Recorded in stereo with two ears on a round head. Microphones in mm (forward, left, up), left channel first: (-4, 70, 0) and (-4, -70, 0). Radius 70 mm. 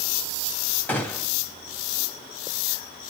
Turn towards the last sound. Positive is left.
turn(degrees=10)  # may be behind; listen again after turning